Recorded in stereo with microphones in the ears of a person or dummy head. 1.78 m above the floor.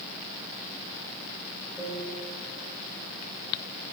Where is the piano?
5° right (ahead or behind), 5.5 m.